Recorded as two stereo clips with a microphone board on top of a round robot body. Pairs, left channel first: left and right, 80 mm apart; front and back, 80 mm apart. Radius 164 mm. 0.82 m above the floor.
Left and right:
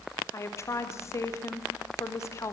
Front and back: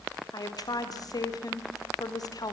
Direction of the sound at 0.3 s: 40° left.